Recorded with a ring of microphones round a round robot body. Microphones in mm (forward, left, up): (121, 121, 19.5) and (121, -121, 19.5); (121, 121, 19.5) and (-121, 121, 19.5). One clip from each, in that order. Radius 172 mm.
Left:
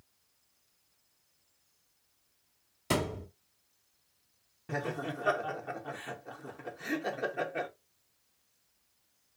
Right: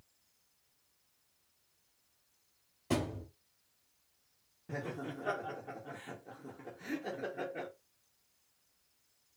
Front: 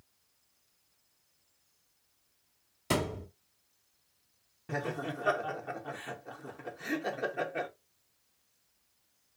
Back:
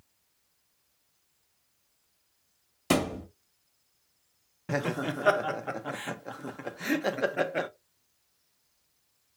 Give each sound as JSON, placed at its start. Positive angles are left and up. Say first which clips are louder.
{"t": 2.9, "sound": "a thud", "louder": "left 4 dB, back 4 dB", "azimuth_deg": 120, "distance_m": 0.8}
{"t": 4.7, "sound": "laughter", "louder": "left 6 dB, back 5 dB", "azimuth_deg": 140, "distance_m": 0.6}